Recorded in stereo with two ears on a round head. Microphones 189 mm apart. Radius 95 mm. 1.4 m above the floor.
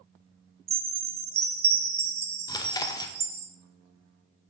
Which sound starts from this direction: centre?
Chewing, at 2.5 s.